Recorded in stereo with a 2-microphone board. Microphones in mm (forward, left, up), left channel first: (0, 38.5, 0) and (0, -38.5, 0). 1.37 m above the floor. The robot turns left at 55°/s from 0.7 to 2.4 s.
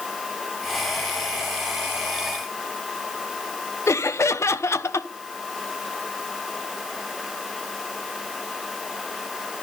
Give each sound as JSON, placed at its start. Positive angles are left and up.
{"t": 3.9, "sound": "laughter", "side_deg": 40, "distance_m": 1.0}